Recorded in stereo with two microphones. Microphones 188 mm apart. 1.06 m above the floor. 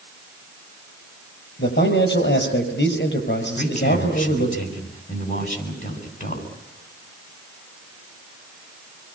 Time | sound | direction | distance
1.6 | a man speaking | 65° left (ahead or behind) | 6 m
3.6 | a man speaking | 40° left (ahead or behind) | 8 m